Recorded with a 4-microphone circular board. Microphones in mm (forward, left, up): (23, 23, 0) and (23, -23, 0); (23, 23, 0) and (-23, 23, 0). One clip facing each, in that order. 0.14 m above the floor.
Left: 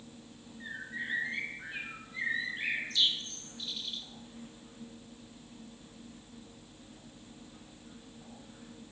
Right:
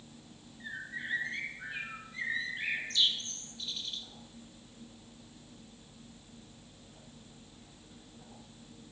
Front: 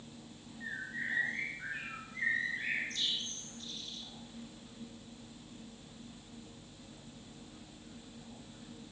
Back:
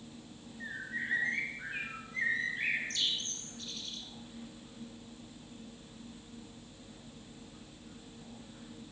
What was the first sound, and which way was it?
A bird, 170° left.